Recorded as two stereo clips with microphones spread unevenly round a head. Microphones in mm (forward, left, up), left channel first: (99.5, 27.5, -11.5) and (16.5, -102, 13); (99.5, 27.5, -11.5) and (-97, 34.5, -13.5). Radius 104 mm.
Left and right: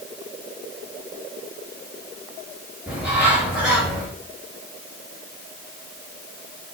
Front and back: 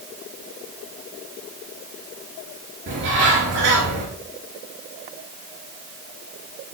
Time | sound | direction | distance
2.9 | a bird | 150° left | 4 m